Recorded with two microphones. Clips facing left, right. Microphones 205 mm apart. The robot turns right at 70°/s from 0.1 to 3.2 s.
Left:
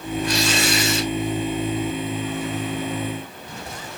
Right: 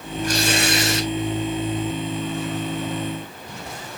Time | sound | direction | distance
0.2 | tearing paper | 135° right | 4 m